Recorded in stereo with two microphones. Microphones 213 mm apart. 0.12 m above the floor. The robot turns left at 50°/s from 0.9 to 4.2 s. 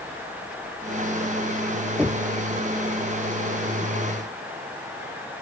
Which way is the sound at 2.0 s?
5° right (ahead or behind).